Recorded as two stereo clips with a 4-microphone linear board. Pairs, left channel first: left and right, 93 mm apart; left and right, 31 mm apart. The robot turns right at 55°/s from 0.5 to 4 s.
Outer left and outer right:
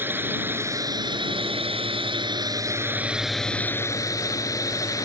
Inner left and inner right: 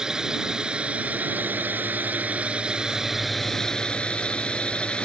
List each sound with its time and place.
0.0 s a drone: 25° right (ahead or behind); by 5.0 s 40° left (ahead or behind)